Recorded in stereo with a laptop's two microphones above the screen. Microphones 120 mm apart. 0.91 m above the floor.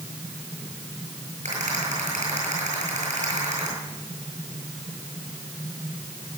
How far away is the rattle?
About 9.5 m.